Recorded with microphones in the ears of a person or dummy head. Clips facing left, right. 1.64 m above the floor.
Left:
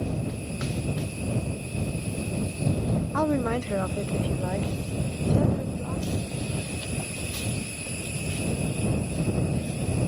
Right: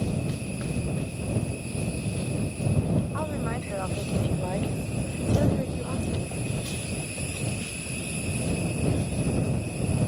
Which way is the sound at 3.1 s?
65° left (ahead or behind).